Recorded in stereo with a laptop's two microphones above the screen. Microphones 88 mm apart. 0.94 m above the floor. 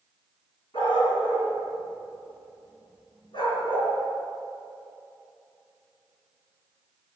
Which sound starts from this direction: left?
A dog barking, at 0.7 s.